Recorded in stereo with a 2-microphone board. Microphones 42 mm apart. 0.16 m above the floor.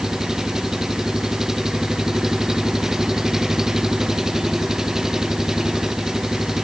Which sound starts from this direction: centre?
An engine running, at 0.0 s.